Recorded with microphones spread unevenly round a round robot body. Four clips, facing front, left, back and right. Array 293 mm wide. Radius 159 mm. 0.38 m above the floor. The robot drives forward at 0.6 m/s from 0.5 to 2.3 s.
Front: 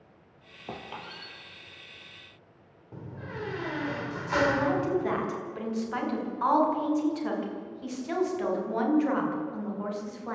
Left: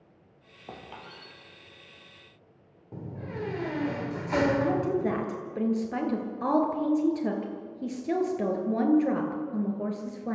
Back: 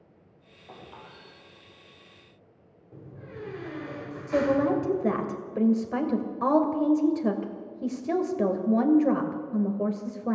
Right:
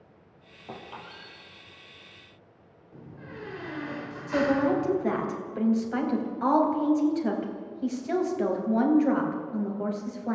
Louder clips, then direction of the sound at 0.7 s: Right 2 dB, front 6 dB; 10° left.